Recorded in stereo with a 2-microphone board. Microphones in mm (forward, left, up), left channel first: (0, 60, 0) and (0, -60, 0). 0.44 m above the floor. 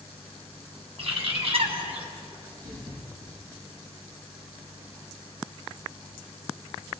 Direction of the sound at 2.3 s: 70° right (ahead or behind).